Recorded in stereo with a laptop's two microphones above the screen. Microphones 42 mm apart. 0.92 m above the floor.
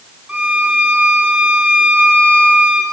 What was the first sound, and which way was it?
A violin, 15° right (ahead or behind).